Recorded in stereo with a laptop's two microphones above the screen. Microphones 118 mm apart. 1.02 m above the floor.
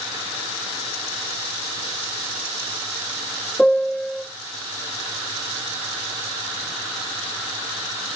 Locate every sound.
3.6 s a piano: 5° left (ahead or behind), 0.6 m